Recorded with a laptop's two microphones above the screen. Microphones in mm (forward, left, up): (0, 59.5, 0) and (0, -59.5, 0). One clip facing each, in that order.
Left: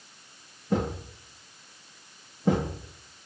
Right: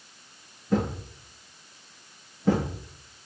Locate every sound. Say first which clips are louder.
0.7 s a thud: right 2 dB; 15° left (ahead or behind), 9 m